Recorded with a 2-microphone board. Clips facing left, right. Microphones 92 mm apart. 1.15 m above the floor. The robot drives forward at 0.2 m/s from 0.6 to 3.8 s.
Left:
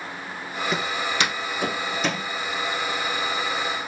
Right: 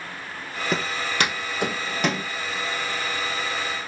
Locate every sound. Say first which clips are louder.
0.7 s footsteps: right 1 dB; 40° right (ahead or behind), 1.4 m; by 2.3 s 60° right (ahead or behind), 2.5 m